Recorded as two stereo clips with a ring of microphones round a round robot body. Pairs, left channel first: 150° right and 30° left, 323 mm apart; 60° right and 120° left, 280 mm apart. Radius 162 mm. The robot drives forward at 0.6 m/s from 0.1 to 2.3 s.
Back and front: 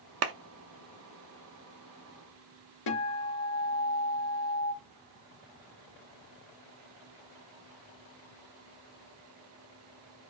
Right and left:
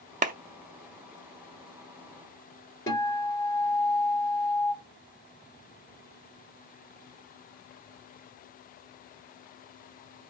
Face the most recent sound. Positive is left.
turn(degrees=-140)